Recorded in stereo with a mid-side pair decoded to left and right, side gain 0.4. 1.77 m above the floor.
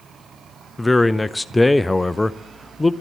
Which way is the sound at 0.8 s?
20° left.